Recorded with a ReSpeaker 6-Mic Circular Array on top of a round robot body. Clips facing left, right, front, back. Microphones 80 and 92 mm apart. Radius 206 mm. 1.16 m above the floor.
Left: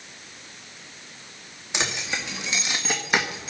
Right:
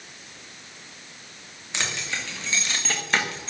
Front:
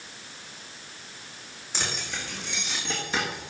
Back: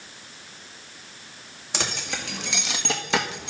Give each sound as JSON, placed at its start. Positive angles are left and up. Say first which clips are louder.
{"t": 1.7, "sound": "keys jangling", "louder": "left 2 dB, back 3 dB", "azimuth_deg": 165, "distance_m": 2.5}